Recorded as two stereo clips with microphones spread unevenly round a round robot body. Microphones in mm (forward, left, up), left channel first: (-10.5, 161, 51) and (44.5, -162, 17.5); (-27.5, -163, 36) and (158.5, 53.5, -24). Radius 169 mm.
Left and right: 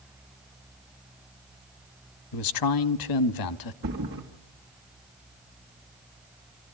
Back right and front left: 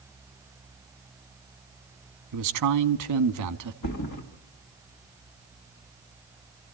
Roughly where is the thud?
Behind right.